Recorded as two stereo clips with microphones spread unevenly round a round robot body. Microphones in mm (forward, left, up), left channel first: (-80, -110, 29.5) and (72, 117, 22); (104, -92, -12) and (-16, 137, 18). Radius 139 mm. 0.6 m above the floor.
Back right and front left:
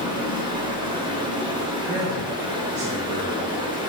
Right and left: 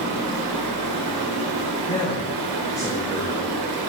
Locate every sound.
0.0 s running water: 130° left, 1.9 m
1.9 s a man speaking: 15° left, 2 m